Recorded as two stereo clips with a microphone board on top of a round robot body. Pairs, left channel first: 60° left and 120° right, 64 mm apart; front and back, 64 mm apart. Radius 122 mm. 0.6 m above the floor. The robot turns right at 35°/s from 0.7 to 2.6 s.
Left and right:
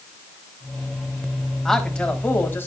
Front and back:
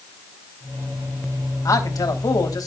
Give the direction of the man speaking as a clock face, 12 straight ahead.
1 o'clock.